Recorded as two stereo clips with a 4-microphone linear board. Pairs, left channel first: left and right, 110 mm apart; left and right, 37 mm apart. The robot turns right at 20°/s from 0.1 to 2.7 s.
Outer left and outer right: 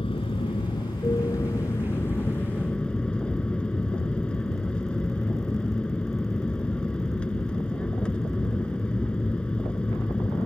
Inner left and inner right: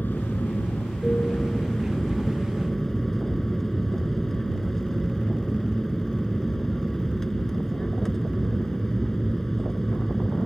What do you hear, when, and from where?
0.0 s an aircraft: 120° left; by 10.5 s 170° left